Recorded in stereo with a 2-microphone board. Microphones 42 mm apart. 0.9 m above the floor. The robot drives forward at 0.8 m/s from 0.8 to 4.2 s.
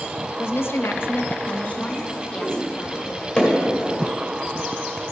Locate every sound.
0.4 s a woman speaking: 65° left (ahead or behind), 0.5 m; by 3.2 s 15° left (ahead or behind), 2.0 m
3.4 s hammering: 20° left (ahead or behind), 2.5 m; by 3.5 s 15° left (ahead or behind), 2.5 m